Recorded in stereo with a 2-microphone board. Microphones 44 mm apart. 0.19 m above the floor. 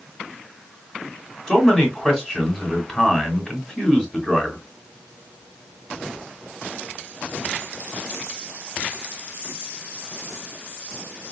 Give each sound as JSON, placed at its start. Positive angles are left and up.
{"t": 1.5, "sound": "a man speaking", "side_deg": 10, "distance_m": 1.6}